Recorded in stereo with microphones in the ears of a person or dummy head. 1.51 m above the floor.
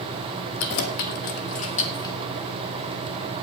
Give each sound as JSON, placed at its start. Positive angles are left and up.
{"t": 0.6, "sound": "keys jangling", "side_deg": 60, "distance_m": 1.8}